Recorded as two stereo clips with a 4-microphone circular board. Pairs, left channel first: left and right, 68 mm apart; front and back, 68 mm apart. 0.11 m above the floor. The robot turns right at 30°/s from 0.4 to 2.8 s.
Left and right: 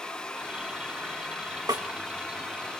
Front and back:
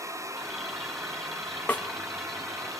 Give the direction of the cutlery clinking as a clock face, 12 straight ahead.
I don't hear cutlery clinking.